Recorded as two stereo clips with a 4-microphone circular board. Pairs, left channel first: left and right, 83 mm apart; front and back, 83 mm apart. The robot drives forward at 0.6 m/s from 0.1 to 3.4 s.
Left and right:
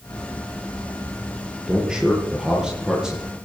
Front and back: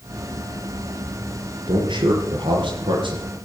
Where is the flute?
No flute in this recording.